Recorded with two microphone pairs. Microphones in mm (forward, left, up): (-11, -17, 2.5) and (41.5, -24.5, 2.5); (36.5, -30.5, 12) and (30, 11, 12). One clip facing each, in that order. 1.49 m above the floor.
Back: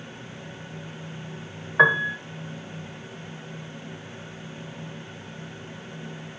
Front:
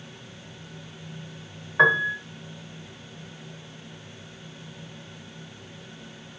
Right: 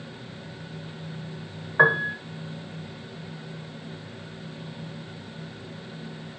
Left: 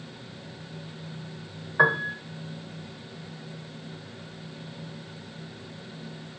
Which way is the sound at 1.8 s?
125° right.